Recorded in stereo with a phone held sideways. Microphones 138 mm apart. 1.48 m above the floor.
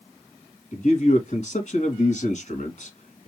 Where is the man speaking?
50° left (ahead or behind), 2.5 m.